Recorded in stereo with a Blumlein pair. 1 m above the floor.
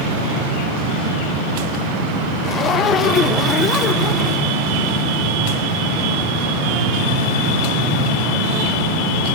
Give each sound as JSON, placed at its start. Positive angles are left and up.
{"t": 2.4, "sound": "a zipper", "azimuth_deg": 25, "distance_m": 1.1}